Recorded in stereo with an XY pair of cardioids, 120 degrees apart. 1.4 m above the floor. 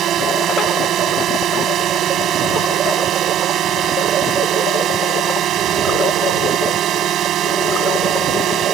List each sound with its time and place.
0.0 s a drone: 60° right